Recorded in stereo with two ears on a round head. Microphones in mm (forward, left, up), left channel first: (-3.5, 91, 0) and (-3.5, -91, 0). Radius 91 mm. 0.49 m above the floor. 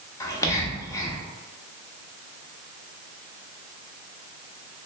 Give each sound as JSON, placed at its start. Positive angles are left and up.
{"t": 0.2, "sound": "whispering", "side_deg": 15, "distance_m": 0.8}